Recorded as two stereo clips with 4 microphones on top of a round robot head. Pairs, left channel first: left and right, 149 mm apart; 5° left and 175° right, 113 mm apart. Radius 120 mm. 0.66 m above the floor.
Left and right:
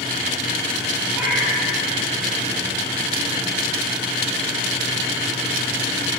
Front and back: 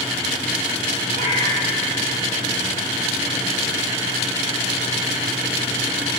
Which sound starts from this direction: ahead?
A cat meowing, at 1.1 s.